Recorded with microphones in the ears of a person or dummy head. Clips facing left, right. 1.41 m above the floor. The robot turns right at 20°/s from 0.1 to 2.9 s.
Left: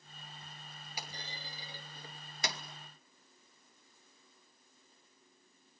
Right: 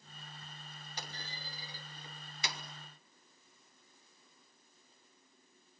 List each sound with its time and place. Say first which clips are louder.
1.0 s a clunk: left 1 dB; 10° left (ahead or behind), 2 m; by 2.6 s 40° left (ahead or behind), 2 m